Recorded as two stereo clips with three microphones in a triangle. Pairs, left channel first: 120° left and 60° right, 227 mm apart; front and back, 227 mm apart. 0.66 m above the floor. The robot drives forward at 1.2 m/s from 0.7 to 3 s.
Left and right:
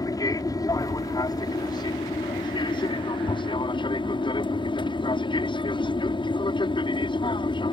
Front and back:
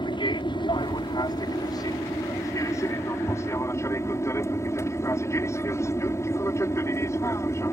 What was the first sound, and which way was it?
An aircraft, 55° left.